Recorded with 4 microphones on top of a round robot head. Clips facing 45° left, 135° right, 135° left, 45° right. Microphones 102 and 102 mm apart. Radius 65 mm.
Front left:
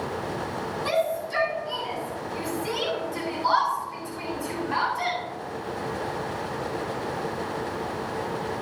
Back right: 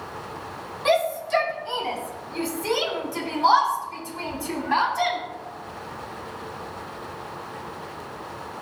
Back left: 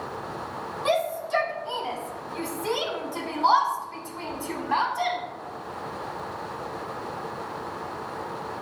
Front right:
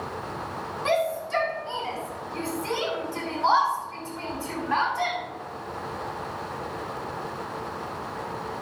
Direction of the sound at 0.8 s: 155° right.